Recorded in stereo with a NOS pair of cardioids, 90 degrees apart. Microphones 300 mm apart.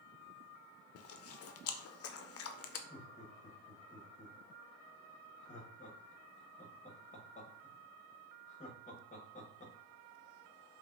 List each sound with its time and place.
0.9 s chewing: 50° left, 0.5 m
2.9 s laughter: 25° left, 1.6 m